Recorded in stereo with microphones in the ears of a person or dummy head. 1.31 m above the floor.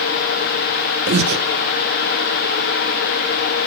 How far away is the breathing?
About 1.6 m.